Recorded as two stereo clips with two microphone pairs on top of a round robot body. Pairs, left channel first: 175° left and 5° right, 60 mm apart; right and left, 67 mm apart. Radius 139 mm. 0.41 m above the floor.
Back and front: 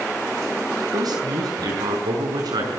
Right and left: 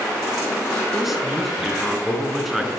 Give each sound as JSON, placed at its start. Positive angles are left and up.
{"t": 0.9, "sound": "a man speaking", "azimuth_deg": 5, "distance_m": 6.0}